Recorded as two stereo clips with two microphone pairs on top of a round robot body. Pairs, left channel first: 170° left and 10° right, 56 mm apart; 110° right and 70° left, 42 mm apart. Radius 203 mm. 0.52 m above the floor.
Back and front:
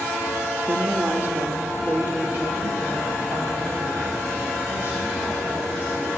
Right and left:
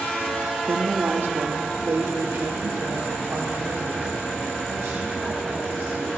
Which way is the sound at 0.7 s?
40° left.